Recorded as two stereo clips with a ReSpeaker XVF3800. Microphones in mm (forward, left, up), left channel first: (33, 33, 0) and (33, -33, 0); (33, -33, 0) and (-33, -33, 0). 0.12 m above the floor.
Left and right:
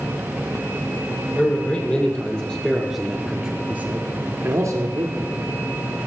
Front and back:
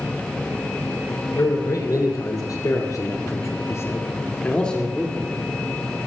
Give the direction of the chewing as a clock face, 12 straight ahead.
I don't hear chewing.